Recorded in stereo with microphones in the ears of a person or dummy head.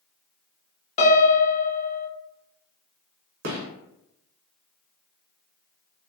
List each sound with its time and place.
1.0 s a piano: 35° left (ahead or behind), 0.9 m
3.4 s a gunshot: 55° right (ahead or behind), 1.0 m